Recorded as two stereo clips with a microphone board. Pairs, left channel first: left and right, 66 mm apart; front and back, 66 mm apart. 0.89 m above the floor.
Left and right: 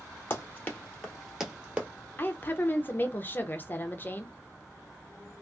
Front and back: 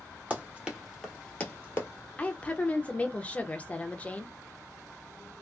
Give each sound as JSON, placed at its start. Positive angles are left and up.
{"t": 0.3, "sound": "running footsteps", "azimuth_deg": 125, "distance_m": 1.1}
{"t": 2.2, "sound": "a woman speaking", "azimuth_deg": 55, "distance_m": 0.6}